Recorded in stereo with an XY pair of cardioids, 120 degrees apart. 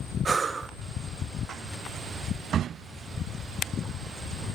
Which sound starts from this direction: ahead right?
Breathing, at 0.2 s.